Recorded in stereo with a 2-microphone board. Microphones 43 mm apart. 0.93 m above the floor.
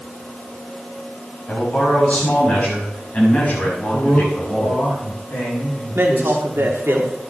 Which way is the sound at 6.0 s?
70° right (ahead or behind).